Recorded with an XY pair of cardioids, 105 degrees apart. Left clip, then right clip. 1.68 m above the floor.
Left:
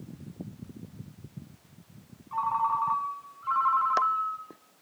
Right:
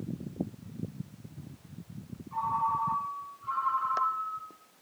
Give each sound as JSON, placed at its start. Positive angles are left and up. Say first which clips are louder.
{"t": 2.3, "sound": "a ringtone", "louder": "left 2 dB", "azimuth_deg": 55, "distance_m": 1.7}